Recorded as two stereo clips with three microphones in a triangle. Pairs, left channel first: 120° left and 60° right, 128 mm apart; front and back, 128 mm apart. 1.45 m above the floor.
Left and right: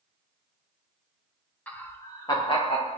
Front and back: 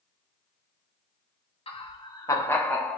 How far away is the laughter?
About 1.1 m.